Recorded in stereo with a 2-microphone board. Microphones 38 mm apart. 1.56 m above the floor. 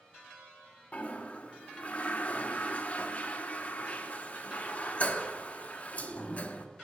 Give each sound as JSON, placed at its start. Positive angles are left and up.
{"t": 0.9, "sound": "a toilet flushing", "side_deg": 35, "distance_m": 0.7}